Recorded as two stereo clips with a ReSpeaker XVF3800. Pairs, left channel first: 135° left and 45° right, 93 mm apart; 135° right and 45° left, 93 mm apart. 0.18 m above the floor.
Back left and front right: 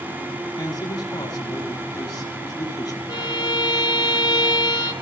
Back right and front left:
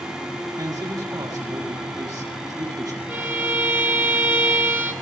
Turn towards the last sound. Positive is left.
turn(degrees=110)